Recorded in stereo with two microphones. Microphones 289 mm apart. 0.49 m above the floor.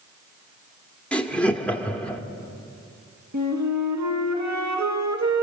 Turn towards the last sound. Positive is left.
turn(degrees=-75)  # may be behind; listen again after turning